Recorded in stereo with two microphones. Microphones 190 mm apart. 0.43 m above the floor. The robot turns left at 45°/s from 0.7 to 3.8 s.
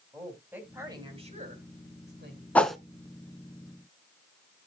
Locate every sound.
0.1 s a woman speaking: 10° right, 3.5 m; by 2.5 s 90° right, 3.5 m
2.5 s a whoosh: 10° left (ahead or behind), 0.7 m; by 2.8 s centre (ahead or behind), 0.7 m